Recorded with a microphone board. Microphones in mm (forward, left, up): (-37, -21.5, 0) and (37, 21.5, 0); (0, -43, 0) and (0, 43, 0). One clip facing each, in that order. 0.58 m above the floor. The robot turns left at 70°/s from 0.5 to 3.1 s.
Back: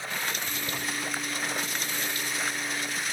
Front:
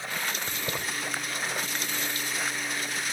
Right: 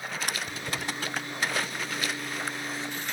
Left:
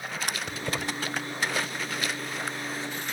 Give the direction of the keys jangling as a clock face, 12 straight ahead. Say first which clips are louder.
Front 1 dB, left 3 dB; 9 o'clock.